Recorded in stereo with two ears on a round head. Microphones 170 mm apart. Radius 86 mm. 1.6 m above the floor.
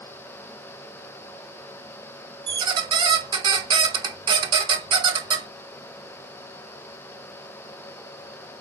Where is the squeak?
25° right (ahead or behind), 0.7 m.